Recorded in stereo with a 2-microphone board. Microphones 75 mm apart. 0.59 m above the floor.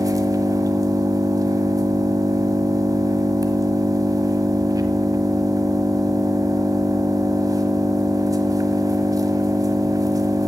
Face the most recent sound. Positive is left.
turn(degrees=-50)  # may be behind; listen again after turning